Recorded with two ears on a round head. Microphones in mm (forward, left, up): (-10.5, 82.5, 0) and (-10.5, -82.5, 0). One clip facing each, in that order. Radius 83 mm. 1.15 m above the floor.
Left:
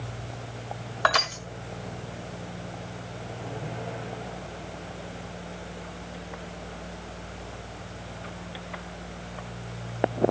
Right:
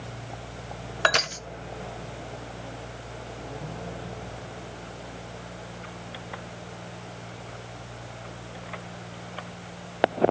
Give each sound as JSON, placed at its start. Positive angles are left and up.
{"t": 1.0, "sound": "crushing", "side_deg": -30, "distance_m": 1.1}